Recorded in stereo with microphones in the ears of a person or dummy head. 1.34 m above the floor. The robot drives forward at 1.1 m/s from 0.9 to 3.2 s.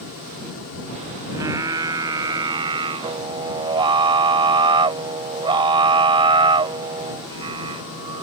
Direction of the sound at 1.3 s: 20° right (ahead or behind).